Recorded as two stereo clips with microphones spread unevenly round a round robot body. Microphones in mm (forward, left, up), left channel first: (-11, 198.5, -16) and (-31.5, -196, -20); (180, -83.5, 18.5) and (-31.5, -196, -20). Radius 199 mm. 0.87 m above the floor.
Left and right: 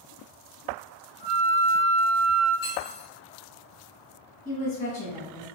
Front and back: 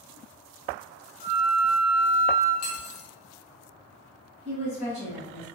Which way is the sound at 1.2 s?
35° left.